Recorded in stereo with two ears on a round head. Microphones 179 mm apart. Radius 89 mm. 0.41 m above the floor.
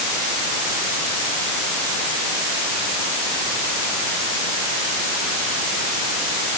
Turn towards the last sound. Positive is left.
No sound to turn to.